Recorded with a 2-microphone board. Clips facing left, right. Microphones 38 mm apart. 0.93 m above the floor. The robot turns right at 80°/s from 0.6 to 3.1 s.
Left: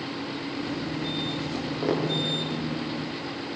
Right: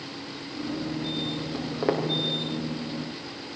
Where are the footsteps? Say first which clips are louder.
Right 1 dB; 5° left (ahead or behind), 4 m; by 2.1 s 35° right (ahead or behind), 4 m.